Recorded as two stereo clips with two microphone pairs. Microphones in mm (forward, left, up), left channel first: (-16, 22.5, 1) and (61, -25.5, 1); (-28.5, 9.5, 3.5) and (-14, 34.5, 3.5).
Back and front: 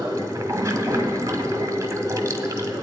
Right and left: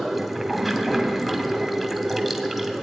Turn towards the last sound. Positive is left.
turn(degrees=-40)